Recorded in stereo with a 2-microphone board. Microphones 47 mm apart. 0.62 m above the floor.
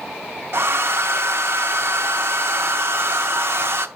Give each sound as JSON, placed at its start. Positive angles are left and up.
{"t": 0.5, "sound": "a hair dryer", "side_deg": -60, "distance_m": 0.6}